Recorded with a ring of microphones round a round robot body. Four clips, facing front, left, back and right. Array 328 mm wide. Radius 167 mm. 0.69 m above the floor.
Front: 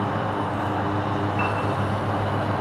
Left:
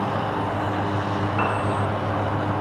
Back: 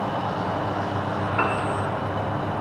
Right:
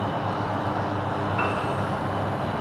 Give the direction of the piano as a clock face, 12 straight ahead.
6 o'clock.